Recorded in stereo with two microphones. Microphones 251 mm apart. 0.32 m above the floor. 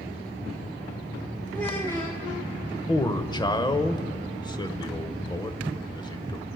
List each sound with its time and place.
1.5 s a child speaking: 10° left (ahead or behind), 1.6 m
2.9 s a man speaking: 15° left (ahead or behind), 0.9 m